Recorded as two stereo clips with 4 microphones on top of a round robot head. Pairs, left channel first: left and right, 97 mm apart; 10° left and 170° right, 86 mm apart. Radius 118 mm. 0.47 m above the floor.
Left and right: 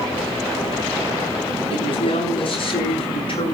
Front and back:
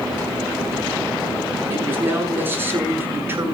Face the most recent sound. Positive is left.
turn(degrees=125)